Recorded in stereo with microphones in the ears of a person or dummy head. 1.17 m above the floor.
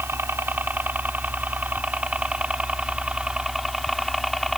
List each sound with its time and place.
0.0 s a helicopter: 10° right (ahead or behind); by 4.6 s centre (ahead or behind)